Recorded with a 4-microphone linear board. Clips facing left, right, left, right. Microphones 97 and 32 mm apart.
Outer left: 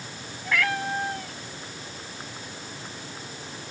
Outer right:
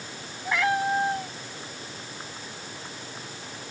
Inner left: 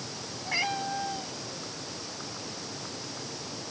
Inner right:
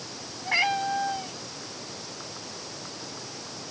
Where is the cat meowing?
25° right (ahead or behind).